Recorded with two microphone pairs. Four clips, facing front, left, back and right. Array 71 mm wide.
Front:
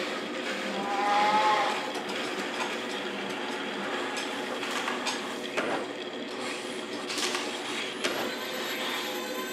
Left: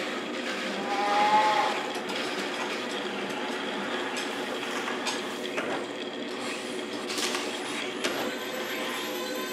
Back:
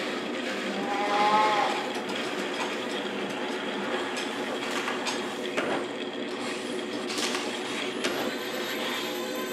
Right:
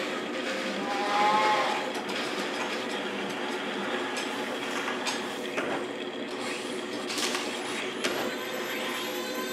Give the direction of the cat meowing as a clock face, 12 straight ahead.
7 o'clock.